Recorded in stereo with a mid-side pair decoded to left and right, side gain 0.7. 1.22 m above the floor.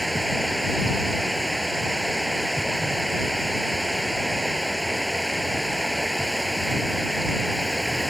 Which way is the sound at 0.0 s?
Straight ahead.